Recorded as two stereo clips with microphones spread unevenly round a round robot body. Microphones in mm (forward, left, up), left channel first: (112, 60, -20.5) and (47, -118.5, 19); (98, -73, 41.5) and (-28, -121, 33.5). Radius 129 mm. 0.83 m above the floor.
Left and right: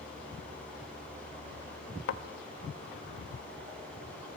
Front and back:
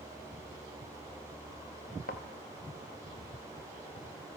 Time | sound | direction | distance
2.1 | a thud | 65° left | 1.0 m